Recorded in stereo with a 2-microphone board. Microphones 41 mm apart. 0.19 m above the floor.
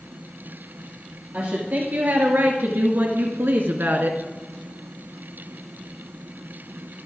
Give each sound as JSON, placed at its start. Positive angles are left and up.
{"t": 1.3, "sound": "a woman speaking", "side_deg": -45, "distance_m": 3.0}